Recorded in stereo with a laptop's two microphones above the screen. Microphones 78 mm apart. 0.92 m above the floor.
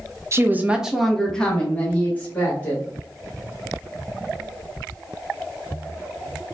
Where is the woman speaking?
35° right (ahead or behind), 0.5 m; by 2.8 s 25° left (ahead or behind), 2.0 m.